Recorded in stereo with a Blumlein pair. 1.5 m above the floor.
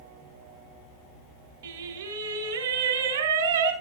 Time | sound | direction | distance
1.6 | singing | 65° right | 4 m